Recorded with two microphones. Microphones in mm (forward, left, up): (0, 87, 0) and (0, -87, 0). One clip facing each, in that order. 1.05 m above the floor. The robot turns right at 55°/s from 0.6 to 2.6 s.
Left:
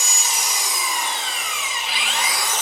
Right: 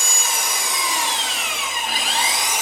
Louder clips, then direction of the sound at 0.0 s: Right 2 dB; 120° right.